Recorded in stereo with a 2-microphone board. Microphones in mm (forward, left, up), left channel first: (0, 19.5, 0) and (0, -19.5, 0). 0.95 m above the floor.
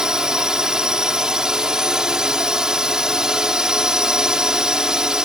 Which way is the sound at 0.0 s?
20° right (ahead or behind).